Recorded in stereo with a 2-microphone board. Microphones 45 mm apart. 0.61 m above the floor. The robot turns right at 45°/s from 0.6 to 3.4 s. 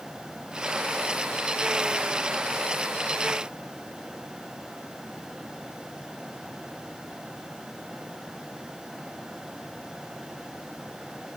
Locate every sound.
Only background noise.